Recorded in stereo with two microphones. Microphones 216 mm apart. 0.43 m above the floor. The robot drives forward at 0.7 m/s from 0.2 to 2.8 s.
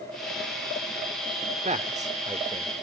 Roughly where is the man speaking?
Right.